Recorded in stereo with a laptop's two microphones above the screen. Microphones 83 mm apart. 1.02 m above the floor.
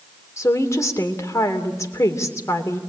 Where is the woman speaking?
35° left (ahead or behind), 3 m.